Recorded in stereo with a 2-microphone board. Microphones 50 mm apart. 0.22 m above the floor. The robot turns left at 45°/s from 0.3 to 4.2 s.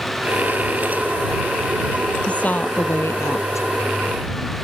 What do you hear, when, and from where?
2.3 s a woman speaking: 155° left; by 3.7 s 95° left